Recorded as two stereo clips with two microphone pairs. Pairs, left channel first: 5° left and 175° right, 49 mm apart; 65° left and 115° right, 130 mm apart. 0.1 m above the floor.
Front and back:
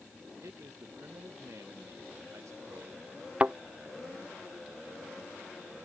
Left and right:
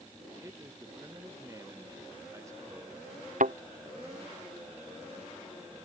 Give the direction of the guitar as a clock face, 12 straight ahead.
No guitar in this recording.